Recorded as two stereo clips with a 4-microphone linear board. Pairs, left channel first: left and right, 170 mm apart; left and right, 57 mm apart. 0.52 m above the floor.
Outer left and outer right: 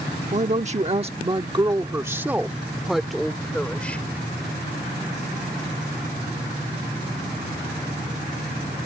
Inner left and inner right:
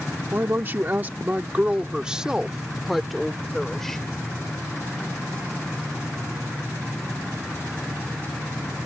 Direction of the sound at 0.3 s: 40° right (ahead or behind).